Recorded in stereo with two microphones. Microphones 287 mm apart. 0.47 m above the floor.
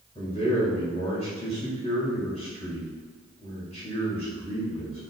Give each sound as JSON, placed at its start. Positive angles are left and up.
{"t": 0.1, "sound": "a man speaking", "side_deg": 20, "distance_m": 1.7}